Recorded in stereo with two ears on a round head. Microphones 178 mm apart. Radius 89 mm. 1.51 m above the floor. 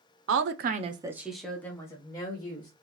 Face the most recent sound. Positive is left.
turn(degrees=25)  # may be behind; listen again after turning